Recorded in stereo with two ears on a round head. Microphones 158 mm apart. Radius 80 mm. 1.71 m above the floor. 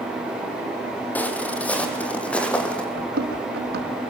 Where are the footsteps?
10° left (ahead or behind), 2.5 m; by 2.9 s 5° left (ahead or behind), 3.5 m.